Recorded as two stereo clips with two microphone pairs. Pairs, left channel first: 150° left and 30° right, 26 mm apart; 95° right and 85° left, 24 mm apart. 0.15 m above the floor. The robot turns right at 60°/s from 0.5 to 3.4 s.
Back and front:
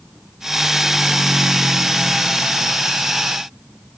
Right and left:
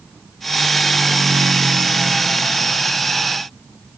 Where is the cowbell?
No cowbell in this recording.